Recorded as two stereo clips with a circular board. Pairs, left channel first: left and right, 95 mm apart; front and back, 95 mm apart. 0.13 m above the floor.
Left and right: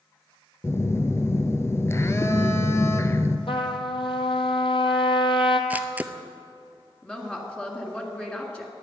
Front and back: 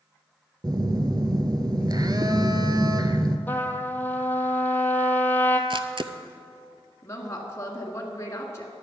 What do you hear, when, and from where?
0.6 s a phone buzzing: 145° left, 0.8 m
3.5 s a trumpet: 70° left, 1.0 m
5.7 s a camera shutter: 160° right, 0.7 m
7.0 s a woman speaking: 20° left, 1.8 m